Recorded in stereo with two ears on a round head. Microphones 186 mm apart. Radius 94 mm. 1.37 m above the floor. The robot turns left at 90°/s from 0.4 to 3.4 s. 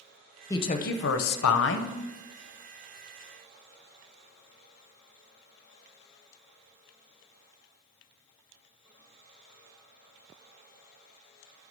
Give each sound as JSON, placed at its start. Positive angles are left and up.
{"t": 0.5, "sound": "a woman speaking", "azimuth_deg": 165, "distance_m": 0.7}